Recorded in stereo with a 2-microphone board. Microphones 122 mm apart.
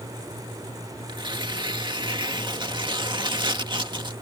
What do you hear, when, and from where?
1.1 s tearing paper: 40° right (ahead or behind)